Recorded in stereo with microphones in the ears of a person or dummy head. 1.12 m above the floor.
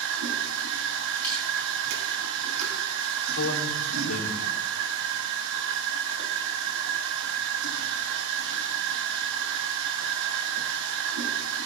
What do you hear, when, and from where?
0.0 s a machine running: 65° right (ahead or behind), 2 m
1.2 s crushing: 10° left (ahead or behind), 5.5 m
3.3 s a man speaking: 75° left (ahead or behind), 3.5 m